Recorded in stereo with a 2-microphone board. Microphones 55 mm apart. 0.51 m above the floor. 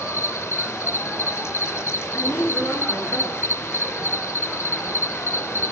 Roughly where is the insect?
Left.